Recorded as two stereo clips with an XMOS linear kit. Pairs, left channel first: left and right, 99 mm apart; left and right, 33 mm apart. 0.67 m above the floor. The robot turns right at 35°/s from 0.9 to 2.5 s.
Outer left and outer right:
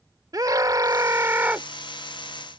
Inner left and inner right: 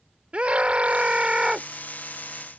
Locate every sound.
0.3 s a scream: 40° right (ahead or behind); by 1.7 s 15° right (ahead or behind)